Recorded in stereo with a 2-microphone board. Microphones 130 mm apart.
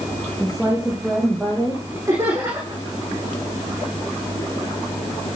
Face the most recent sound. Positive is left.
turn(degrees=-20)  # may be behind; listen again after turning